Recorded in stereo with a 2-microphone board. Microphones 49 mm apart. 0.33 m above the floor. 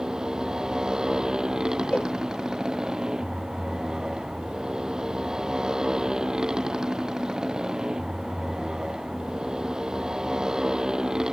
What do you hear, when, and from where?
0.0 s a motorcycle: 15° right (ahead or behind)
1.9 s a cowbell: 20° left (ahead or behind)